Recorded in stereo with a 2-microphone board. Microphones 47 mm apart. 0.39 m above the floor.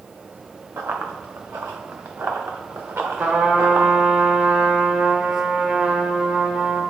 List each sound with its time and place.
0.8 s running footsteps: 65° right (ahead or behind), 1.4 m; by 3.9 s 55° right (ahead or behind), 2.0 m
3.2 s a trumpet: 35° right (ahead or behind), 0.9 m